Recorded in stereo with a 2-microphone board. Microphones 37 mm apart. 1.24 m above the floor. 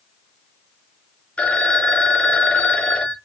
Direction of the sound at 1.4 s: 35° left (ahead or behind).